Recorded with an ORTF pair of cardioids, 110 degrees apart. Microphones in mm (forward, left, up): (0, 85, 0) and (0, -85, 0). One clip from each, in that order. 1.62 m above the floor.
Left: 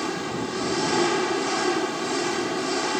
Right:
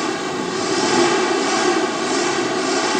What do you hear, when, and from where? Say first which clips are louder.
0.0 s an engine running: right 6 dB; 35° right